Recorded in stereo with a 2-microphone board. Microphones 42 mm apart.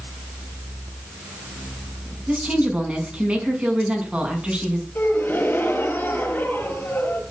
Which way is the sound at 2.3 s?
30° right (ahead or behind).